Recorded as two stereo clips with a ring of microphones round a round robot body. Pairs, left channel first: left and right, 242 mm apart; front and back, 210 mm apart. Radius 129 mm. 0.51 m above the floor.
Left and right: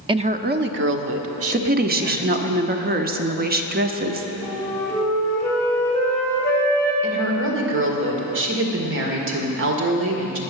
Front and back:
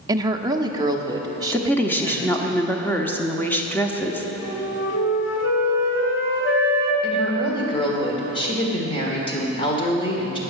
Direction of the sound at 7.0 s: 65° right.